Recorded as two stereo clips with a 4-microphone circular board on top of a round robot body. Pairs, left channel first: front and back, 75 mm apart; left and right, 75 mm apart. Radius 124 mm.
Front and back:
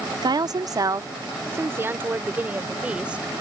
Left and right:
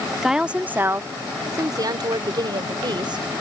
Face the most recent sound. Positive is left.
turn(degrees=-105)